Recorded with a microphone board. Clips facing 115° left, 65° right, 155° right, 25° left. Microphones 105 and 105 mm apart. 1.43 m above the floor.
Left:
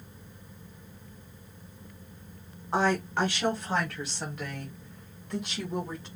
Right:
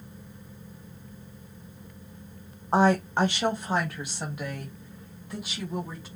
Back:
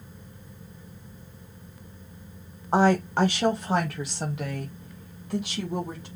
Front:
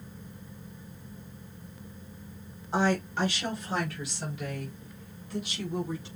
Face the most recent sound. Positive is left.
turn(degrees=-150)